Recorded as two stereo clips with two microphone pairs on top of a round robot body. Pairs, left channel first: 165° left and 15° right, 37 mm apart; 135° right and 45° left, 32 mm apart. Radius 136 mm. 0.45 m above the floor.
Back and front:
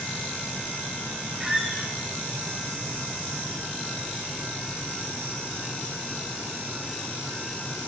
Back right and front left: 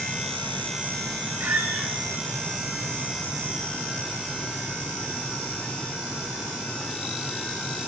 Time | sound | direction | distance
1.4 | a squeak | 60° left | 2.5 m